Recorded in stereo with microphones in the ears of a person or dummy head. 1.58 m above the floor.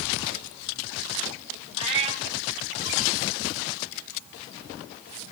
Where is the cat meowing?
35° right (ahead or behind), 3 m.